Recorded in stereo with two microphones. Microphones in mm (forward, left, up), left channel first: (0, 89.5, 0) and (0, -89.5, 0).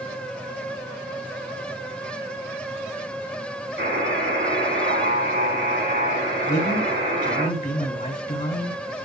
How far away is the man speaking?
About 2.5 m.